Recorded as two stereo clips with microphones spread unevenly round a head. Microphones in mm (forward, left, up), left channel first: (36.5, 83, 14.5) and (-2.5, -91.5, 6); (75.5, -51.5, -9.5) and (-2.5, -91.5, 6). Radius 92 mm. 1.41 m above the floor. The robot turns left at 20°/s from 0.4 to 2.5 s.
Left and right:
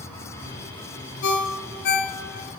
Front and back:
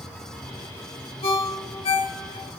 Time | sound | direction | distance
1.2 | a ringtone | 70° left | 0.6 m